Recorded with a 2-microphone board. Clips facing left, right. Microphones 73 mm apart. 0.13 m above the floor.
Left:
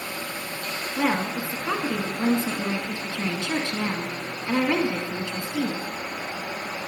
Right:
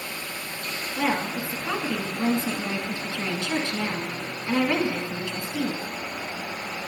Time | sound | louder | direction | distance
1.0 | a woman speaking | left 1 dB | 20° left (ahead or behind) | 1.2 m